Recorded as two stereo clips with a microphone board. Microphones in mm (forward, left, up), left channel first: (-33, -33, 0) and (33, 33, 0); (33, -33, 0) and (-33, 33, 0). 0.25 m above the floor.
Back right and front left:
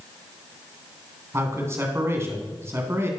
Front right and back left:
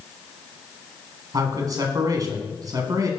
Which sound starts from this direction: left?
A man speaking, at 1.3 s.